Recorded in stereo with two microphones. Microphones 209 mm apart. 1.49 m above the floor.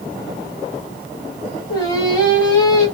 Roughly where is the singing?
Centre.